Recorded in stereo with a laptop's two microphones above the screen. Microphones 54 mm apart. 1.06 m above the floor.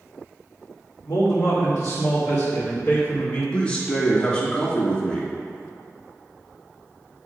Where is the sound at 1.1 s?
80° left, 1.5 m; by 3.4 s 30° left (ahead or behind), 2.5 m.